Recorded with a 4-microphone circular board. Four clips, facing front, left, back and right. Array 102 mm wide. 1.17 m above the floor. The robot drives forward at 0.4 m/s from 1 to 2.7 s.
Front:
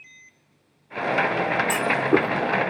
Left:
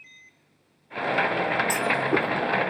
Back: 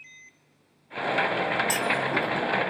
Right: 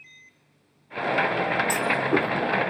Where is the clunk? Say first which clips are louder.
Right 1 dB, front 6 dB; straight ahead, 2 m.